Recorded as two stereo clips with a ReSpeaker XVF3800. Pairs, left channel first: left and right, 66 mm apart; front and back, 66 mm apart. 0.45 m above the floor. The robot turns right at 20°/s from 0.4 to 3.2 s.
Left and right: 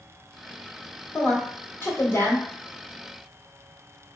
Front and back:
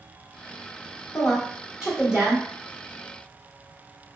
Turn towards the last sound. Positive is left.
turn(degrees=125)